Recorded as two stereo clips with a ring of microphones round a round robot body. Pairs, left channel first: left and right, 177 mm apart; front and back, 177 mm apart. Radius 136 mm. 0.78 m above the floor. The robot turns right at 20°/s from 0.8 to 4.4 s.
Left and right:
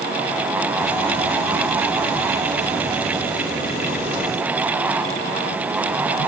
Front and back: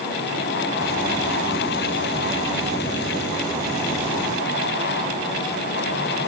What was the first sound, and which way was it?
Only background noise.